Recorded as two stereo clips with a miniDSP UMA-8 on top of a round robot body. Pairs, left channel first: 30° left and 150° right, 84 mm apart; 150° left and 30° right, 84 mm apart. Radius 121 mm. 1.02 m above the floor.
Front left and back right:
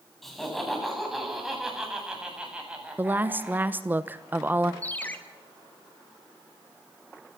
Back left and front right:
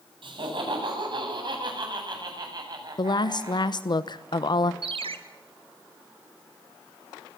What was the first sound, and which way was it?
Laughter, 60° right.